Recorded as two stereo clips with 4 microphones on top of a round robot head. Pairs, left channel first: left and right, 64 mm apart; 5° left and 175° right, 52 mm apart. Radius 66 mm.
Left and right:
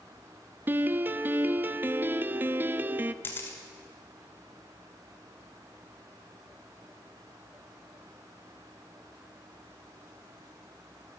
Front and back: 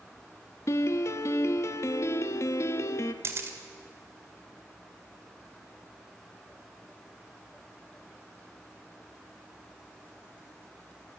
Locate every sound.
0.7 s a piano: 30° right, 0.6 m
3.2 s a camera shutter: 150° left, 2 m